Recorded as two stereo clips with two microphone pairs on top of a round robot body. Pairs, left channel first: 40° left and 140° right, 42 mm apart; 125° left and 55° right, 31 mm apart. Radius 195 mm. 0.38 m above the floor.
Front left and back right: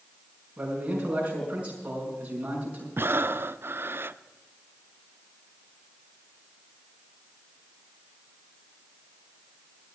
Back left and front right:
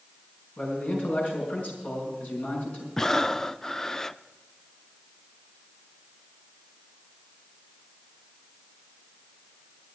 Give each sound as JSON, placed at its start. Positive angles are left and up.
{"t": 0.6, "sound": "a man speaking", "azimuth_deg": 160, "distance_m": 5.5}
{"t": 3.0, "sound": "breathing", "azimuth_deg": -160, "distance_m": 0.6}